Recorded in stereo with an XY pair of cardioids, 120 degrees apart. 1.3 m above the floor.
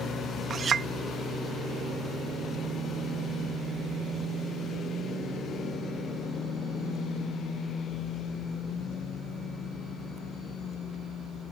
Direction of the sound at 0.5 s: 40° right.